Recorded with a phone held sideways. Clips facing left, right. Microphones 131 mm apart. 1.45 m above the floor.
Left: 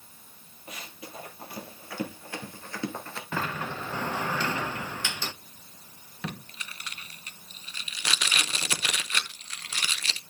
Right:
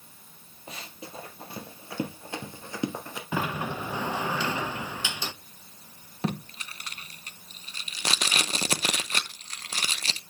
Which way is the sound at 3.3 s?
15° right (ahead or behind).